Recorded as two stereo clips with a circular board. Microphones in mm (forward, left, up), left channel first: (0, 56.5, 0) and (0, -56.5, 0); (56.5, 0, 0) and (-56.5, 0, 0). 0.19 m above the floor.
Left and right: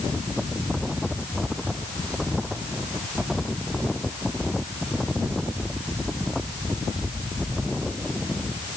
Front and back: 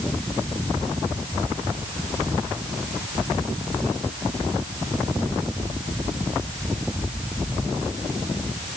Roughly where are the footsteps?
No footsteps in this recording.